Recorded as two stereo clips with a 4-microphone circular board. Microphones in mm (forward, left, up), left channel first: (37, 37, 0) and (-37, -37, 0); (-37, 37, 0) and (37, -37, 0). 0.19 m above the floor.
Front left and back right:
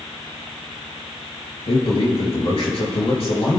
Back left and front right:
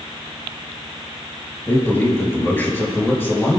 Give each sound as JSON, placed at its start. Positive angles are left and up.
{"t": 1.7, "sound": "a man speaking", "azimuth_deg": 65, "distance_m": 4.0}